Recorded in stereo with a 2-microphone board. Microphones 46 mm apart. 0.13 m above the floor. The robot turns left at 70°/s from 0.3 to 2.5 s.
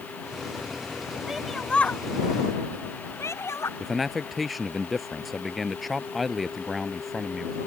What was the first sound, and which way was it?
A shout, 10° right (ahead or behind).